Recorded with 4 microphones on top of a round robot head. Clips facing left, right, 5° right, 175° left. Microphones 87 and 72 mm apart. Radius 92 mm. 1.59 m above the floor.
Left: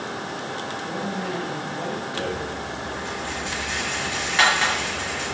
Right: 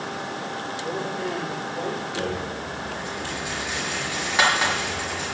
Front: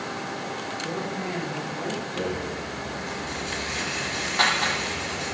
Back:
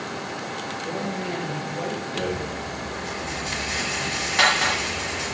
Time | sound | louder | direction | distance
0.8 | a woman speaking | right 1 dB, back 2 dB | 145° right | 8 m
2.1 | a rattle | even, back 1 dB | 160° right | 6.5 m